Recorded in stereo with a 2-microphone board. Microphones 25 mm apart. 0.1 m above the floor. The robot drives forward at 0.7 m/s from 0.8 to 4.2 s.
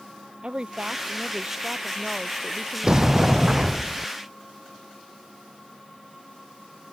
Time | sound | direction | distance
0.4 | a woman speaking | 40° right (ahead or behind) | ?
2.8 | a sliding door | 30° right (ahead or behind) | ?